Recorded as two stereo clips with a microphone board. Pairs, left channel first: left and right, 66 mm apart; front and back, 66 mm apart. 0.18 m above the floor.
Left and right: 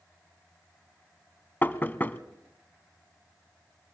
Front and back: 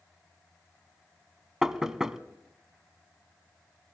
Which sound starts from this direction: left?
Knocking, at 1.6 s.